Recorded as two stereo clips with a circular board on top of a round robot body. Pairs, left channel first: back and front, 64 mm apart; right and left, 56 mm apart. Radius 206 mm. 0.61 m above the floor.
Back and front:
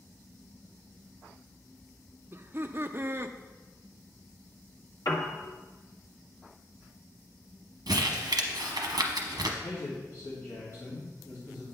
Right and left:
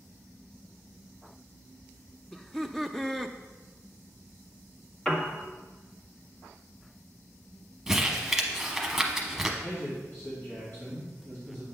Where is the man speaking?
130° right, 2.5 m.